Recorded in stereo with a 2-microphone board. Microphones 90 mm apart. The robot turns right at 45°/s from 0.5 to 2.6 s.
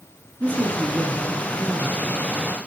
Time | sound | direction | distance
0.4 | a man speaking | 20° right (ahead or behind) | 1.1 m